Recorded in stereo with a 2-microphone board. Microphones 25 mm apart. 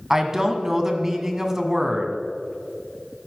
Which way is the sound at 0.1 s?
15° right (ahead or behind).